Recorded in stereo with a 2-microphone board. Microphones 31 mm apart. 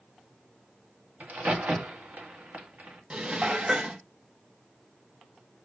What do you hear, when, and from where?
1.2 s a crack: 70° right (ahead or behind), 1.9 m
3.1 s dishes clattering: 40° right (ahead or behind), 0.8 m